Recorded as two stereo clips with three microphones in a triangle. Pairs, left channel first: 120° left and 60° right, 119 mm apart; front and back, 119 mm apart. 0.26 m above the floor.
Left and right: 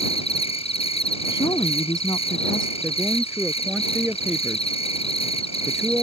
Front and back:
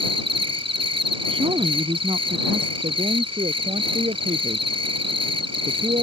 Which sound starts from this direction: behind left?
An insect, at 0.0 s.